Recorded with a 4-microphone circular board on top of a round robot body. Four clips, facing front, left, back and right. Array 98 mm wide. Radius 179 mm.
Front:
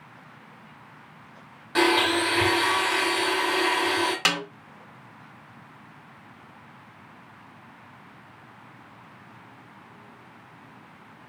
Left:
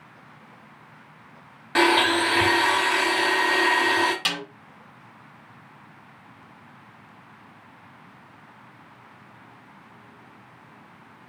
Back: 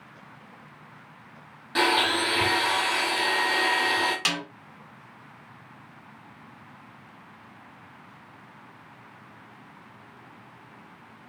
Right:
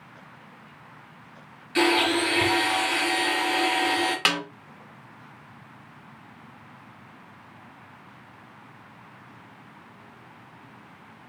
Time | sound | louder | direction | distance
1.8 | a blender | left 3 dB, front 2 dB | 80° left | 1.6 m
4.2 | a snare drum | right 4 dB, front 4 dB | 55° right | 1.6 m